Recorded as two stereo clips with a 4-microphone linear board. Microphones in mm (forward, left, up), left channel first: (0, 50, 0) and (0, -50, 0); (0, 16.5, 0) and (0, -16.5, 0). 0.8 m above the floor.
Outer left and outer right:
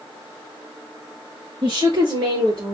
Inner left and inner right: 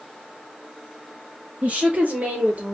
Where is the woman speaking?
55° right (ahead or behind), 3 m; by 2.7 s 45° right (ahead or behind), 2 m.